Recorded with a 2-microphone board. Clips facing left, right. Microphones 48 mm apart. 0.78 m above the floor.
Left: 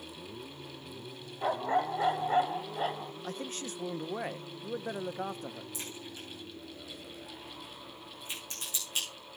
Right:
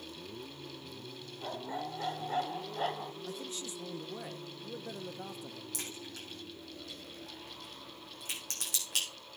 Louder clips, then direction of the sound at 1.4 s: Left 10 dB; 60° left (ahead or behind).